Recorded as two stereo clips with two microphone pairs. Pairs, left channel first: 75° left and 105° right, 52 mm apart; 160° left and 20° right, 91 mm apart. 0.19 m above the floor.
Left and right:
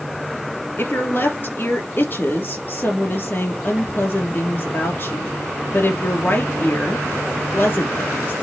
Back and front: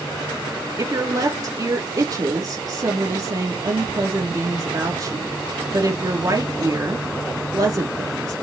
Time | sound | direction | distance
0.8 | a woman speaking | 25° left | 3 m